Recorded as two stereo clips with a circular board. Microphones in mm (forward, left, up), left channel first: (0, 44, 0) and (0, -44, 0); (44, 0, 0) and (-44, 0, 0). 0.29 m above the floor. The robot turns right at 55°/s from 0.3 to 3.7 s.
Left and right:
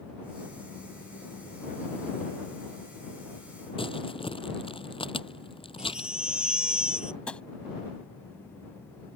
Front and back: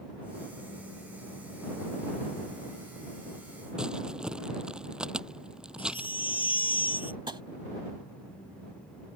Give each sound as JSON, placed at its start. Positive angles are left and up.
{"t": 3.8, "sound": "crumpling", "azimuth_deg": 100}
{"t": 5.8, "sound": "a baby crying", "azimuth_deg": -10}
{"t": 7.3, "sound": "tapping", "azimuth_deg": 165}